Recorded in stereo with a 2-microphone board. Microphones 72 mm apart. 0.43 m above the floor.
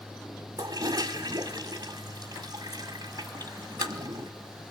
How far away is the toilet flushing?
About 1.2 m.